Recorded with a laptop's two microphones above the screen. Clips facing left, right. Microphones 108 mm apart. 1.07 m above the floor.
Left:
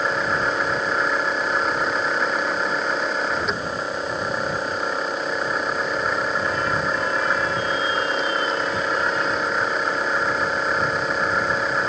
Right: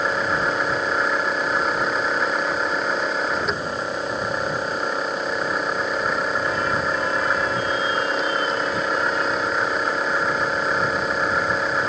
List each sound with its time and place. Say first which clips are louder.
0.0 s a machine running: even; centre (ahead or behind)